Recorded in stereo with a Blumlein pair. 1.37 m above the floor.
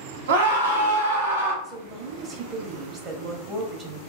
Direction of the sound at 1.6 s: 30° right.